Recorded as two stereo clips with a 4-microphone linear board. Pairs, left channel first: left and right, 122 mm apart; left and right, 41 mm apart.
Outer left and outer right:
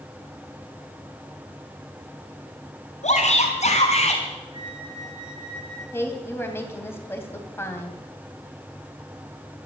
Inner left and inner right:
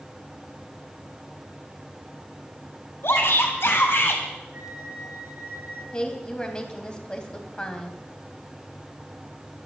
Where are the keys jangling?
No keys jangling in this recording.